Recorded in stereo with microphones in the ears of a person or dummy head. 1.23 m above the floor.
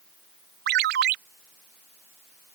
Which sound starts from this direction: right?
A ringtone, at 0.7 s.